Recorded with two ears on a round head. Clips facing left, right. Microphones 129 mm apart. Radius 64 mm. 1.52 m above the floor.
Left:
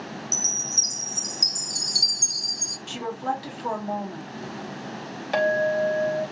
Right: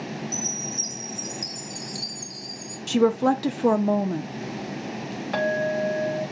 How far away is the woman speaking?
About 0.8 m.